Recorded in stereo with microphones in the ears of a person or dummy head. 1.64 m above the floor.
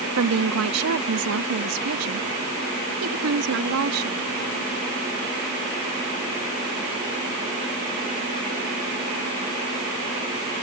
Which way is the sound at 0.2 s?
85° right.